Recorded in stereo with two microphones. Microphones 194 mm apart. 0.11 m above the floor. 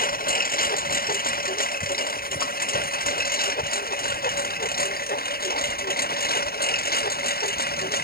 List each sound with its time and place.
0.0 s a lawn mower: 50° left (ahead or behind)